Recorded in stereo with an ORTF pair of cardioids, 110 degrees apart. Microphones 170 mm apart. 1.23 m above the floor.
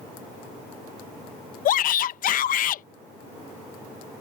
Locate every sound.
1.6 s a shout: 55° left